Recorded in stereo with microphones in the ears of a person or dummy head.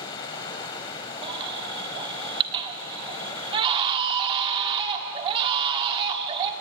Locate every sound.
0.0 s running water: 20° left (ahead or behind), 1.6 m
1.2 s a baby crying: 30° right (ahead or behind), 1.6 m